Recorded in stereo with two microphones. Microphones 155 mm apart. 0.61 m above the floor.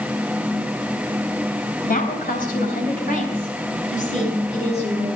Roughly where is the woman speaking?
Left.